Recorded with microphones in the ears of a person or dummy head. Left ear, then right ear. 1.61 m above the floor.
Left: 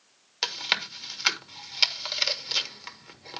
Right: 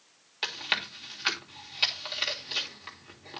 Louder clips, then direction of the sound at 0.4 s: Left 3 dB; 25° left (ahead or behind).